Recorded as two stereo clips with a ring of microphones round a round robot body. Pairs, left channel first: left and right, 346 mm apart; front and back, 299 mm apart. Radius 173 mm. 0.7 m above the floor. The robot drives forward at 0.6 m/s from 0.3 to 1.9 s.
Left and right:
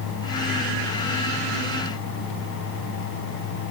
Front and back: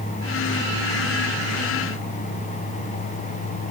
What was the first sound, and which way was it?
Only background noise.